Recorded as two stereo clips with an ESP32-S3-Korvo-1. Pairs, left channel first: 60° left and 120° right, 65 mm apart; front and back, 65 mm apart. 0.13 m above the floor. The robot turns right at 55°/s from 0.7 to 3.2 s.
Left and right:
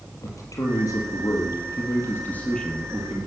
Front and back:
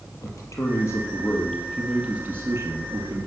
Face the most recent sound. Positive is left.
turn(degrees=170)